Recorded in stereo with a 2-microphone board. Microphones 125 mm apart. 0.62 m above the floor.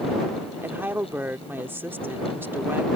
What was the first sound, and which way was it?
A woman speaking, 15° right (ahead or behind).